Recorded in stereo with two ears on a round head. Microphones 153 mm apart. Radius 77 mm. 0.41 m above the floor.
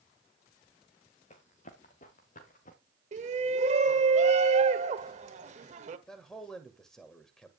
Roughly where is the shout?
Right.